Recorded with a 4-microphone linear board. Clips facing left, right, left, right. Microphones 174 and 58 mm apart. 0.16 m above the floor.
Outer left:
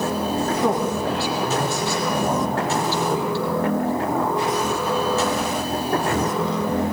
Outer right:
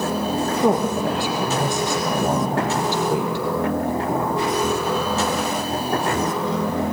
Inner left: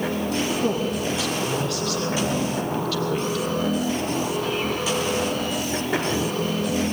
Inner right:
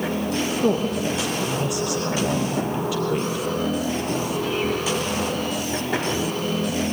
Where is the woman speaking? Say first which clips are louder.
Outer right 2 dB, inner right 2 dB; 15° right (ahead or behind), 4.5 m.